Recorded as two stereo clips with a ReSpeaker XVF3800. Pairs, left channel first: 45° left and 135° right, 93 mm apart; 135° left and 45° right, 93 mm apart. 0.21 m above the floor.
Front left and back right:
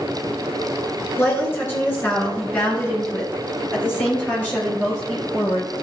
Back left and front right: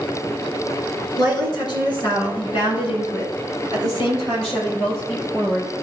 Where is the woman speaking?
100° left, 3 m; by 5.7 s 120° left, 5.5 m.